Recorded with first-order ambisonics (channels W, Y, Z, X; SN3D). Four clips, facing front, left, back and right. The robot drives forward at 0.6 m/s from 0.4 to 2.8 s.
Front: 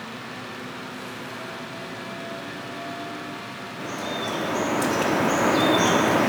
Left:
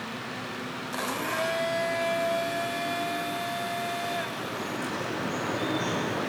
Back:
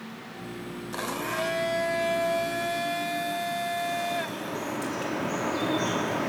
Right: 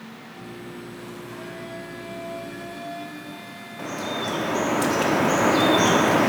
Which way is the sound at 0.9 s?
125° left.